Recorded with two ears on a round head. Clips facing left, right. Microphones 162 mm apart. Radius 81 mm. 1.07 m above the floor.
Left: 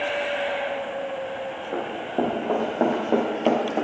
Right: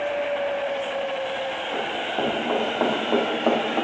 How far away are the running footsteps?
About 3.5 m.